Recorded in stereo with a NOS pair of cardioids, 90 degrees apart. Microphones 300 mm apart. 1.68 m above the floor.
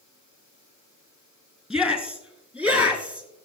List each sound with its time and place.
1.7 s a shout: straight ahead, 4 m; by 3.3 s 5° right, 5 m